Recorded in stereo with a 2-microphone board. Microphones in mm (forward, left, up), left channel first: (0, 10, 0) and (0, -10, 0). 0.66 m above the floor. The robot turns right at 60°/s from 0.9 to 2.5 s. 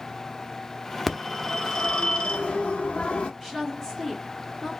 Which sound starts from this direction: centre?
A woman speaking, at 3.4 s.